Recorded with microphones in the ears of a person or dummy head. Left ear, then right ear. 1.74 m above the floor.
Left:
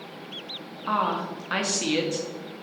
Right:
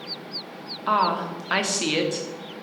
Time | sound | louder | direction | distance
0.9 | a woman speaking | right 4 dB | 15° right (ahead or behind) | 0.7 m